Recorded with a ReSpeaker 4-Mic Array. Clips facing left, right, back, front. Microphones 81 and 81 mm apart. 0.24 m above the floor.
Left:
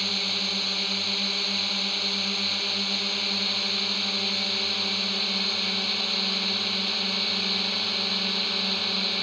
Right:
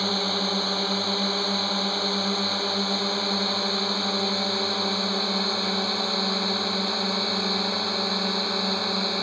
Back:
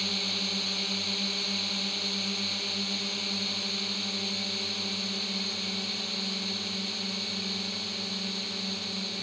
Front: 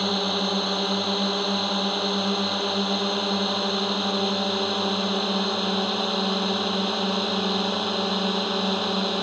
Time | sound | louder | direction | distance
0.0 | a drone | right 7 dB, front 11 dB | 35° right | ?